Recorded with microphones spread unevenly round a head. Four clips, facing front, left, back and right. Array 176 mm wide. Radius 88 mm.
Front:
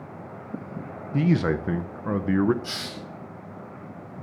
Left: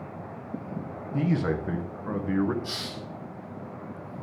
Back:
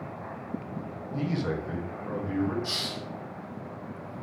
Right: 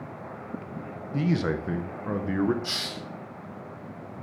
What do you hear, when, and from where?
1.1 s a man speaking: 20° right, 0.8 m
2.6 s a hiss: 45° right, 4.5 m